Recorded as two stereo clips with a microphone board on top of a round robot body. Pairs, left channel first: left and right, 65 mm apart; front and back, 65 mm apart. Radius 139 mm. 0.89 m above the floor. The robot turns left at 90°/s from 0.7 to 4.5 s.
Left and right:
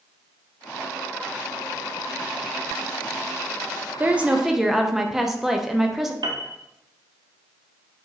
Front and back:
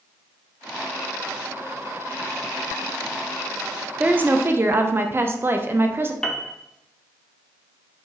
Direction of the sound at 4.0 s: 125° right.